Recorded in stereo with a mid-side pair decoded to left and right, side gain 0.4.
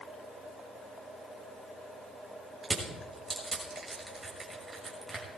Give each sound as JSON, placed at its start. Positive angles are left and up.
{"t": 2.6, "sound": "crushing", "azimuth_deg": -25, "distance_m": 6.0}